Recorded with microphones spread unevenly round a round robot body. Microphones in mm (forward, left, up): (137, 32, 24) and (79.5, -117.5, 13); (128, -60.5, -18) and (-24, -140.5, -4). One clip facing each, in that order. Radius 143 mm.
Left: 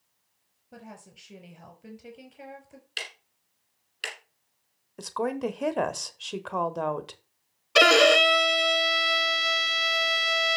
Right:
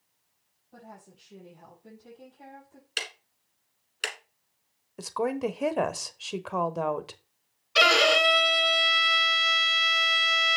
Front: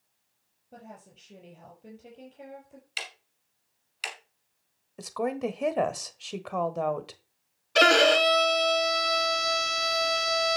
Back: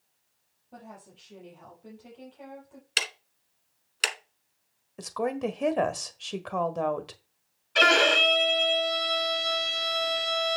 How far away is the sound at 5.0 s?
About 1.3 m.